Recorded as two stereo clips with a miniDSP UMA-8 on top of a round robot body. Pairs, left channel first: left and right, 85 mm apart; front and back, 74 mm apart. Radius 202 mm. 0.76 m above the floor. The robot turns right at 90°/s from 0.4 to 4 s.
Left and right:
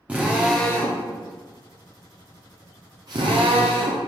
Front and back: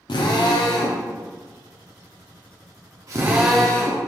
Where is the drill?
15° right, 0.6 m; by 4.1 s 50° right, 0.6 m.